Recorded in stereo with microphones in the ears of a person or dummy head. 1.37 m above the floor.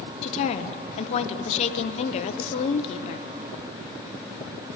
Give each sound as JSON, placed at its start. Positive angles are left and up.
{"t": 0.2, "sound": "a woman speaking", "side_deg": 30, "distance_m": 0.6}